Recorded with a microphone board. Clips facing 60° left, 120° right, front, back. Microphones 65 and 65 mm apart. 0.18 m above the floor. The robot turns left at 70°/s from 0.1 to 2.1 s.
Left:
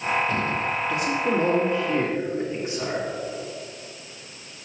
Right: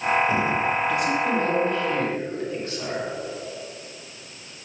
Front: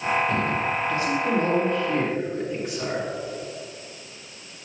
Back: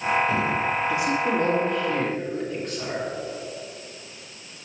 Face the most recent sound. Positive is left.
turn(degrees=60)